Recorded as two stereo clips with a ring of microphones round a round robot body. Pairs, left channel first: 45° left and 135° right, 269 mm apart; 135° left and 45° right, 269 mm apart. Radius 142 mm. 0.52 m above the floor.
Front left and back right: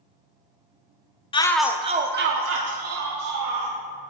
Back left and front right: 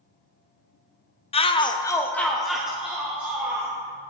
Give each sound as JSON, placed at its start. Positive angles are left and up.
{"t": 1.3, "sound": "a shout", "azimuth_deg": 95, "distance_m": 0.7}